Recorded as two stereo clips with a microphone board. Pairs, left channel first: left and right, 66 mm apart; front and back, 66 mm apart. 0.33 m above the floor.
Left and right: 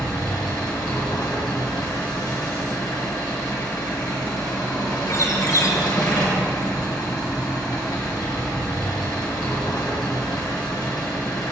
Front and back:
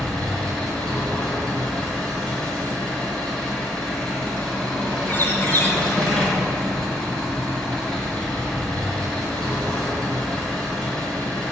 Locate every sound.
0.0 s an engine running: 75° left, 4.5 m
5.1 s a bird: 50° left, 2.5 m